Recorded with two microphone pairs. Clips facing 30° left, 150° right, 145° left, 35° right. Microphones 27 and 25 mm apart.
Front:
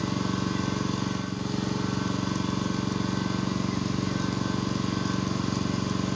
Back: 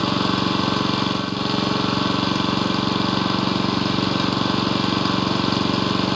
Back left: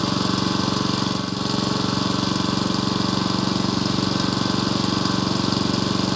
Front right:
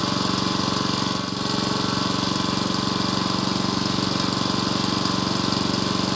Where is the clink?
I don't hear a clink.